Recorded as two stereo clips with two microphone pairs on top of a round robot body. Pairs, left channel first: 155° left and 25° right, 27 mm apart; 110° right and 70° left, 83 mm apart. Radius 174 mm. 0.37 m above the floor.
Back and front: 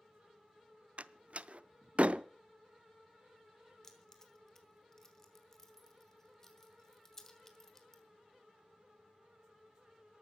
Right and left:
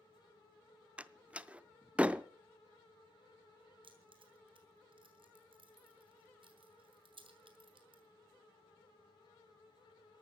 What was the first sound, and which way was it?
A door slam, 10° right.